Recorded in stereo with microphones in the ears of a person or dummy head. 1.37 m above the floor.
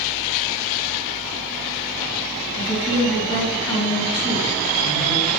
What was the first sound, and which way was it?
A woman speaking, 20° left (ahead or behind).